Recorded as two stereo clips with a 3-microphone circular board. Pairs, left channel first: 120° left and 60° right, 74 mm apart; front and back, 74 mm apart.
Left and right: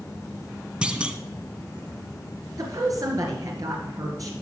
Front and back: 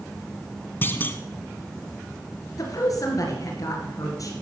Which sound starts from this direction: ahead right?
A woman speaking, at 2.6 s.